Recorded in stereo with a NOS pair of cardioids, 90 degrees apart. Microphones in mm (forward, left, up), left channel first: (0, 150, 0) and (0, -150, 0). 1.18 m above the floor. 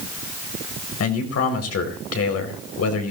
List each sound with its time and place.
1.0 s a man speaking: 55° left, 5 m